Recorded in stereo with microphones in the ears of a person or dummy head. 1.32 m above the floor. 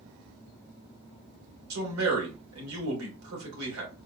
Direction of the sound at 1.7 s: 80° right.